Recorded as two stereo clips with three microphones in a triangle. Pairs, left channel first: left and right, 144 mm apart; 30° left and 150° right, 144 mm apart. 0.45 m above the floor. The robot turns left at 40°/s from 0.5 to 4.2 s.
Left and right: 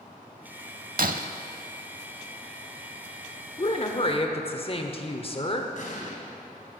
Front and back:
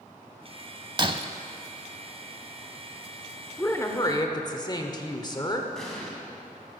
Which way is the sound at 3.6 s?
100° left.